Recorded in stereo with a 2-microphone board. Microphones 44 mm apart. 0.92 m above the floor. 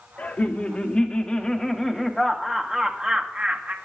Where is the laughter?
30° left (ahead or behind), 1.8 m; by 3.8 s 35° right (ahead or behind), 1.4 m.